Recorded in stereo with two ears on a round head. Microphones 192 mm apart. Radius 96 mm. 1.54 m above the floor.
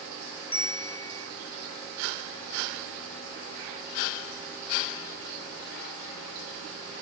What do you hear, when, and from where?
0.5 s a bell: 25° left (ahead or behind), 1.6 m